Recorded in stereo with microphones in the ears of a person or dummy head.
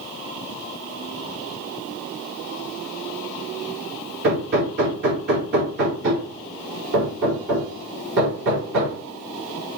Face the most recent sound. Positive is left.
turn(degrees=-60)  # may be behind; listen again after turning